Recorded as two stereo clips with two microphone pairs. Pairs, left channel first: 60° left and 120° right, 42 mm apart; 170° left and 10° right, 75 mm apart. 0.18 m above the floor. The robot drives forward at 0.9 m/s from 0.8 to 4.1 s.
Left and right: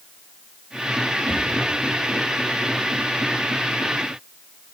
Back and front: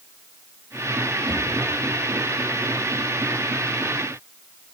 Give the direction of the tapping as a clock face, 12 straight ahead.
12 o'clock.